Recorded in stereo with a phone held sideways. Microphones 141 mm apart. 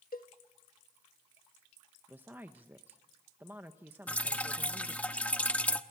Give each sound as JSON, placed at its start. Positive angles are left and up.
{"t": 0.1, "sound": "a cowbell", "side_deg": 80, "distance_m": 1.3}
{"t": 2.1, "sound": "a woman speaking", "side_deg": -15, "distance_m": 1.0}
{"t": 4.1, "sound": "dripping", "side_deg": 10, "distance_m": 0.9}